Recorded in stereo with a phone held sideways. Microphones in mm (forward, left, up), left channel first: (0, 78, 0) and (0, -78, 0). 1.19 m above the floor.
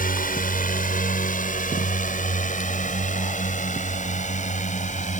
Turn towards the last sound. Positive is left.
turn(degrees=50)  # may be behind; listen again after turning